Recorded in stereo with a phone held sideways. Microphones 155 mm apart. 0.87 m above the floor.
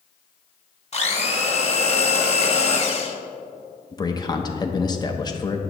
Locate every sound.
0.9 s a blender: 45° left (ahead or behind), 1.2 m
3.9 s a man speaking: 25° left (ahead or behind), 0.7 m